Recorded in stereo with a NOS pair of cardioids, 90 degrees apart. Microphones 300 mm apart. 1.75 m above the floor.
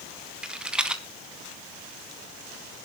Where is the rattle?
5° right, 1.7 m.